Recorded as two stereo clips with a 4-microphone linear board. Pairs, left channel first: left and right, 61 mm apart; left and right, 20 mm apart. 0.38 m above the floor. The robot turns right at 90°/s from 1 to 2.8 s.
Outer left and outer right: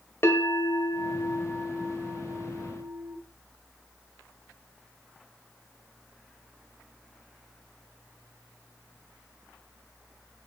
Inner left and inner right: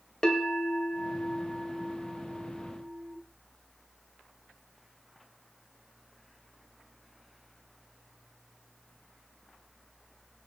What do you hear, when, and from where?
0.2 s a bell: 115° left, 1.8 m; by 3.2 s 85° right, 1.8 m